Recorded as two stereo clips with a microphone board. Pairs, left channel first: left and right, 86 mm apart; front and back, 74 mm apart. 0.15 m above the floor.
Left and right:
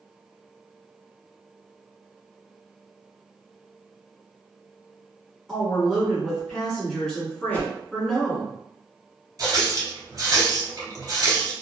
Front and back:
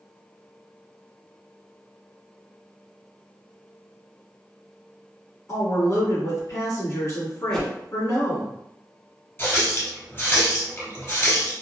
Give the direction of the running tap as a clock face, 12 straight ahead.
2 o'clock.